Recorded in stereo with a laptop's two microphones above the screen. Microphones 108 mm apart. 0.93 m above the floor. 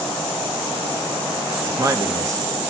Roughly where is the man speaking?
Right.